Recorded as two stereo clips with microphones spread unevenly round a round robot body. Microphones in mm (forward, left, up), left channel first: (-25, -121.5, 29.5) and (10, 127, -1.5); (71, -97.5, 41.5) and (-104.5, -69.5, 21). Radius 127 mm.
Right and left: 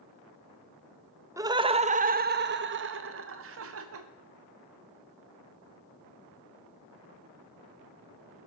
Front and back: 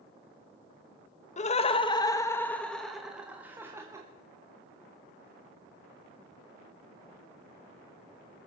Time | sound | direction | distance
1.4 | laughter | 20° left | 0.8 m